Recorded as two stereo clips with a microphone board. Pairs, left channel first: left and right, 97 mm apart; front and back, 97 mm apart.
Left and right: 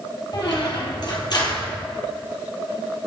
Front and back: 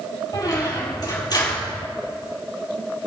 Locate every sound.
0.3 s a squeak: 45° left, 3 m